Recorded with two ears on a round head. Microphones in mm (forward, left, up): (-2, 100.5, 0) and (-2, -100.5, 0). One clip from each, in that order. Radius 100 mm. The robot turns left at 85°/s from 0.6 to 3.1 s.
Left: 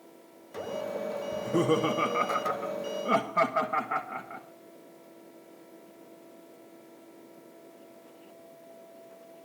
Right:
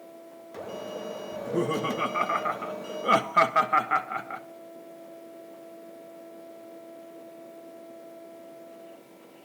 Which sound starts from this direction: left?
Laughter, at 1.3 s.